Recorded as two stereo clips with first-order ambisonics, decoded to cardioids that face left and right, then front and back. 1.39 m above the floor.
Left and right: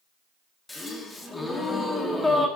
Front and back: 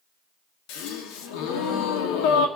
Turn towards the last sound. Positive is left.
turn(degrees=10)